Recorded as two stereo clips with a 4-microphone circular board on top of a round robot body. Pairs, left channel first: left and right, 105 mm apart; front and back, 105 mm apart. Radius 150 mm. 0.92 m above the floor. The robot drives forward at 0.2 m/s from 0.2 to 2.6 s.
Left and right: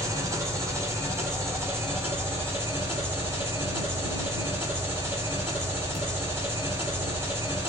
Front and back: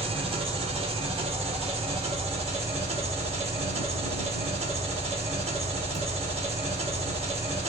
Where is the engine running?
150° right, 1.3 m; by 7.7 s 155° right, 1.7 m.